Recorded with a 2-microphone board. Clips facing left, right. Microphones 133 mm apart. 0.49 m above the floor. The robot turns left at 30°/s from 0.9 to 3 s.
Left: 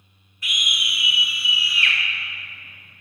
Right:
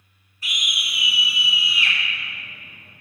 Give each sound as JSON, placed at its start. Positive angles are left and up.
{"t": 0.4, "sound": "a scream", "azimuth_deg": -115, "distance_m": 1.7}